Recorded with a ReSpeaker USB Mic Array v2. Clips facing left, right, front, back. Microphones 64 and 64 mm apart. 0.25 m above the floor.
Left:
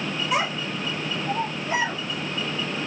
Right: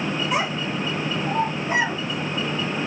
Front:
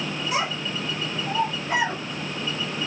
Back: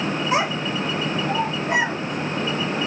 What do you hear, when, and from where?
0.3 s a child speaking: straight behind, 0.6 m; by 2.8 s 95° right, 3 m